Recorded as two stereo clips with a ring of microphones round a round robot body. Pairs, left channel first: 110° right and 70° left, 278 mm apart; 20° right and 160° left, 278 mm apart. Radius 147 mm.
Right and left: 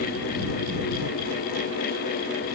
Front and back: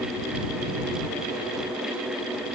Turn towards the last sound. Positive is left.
No sound to turn to.